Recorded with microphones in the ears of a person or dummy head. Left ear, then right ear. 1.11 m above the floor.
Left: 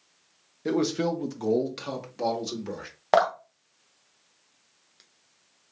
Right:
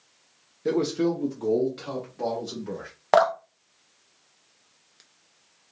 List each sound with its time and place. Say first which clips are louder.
0.7 s a man speaking: right 2 dB; 5° left (ahead or behind), 0.5 m; by 2.9 s 70° left (ahead or behind), 1.5 m
3.1 s dripping: right 2 dB; centre (ahead or behind), 0.6 m